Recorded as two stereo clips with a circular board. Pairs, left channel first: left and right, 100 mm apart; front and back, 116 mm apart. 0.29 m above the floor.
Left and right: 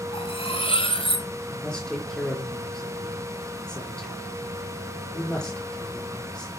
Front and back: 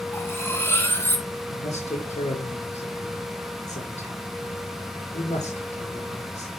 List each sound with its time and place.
0.1 s cutlery clinking: 70° left, 1.9 m
1.5 s a man speaking: 5° left, 5 m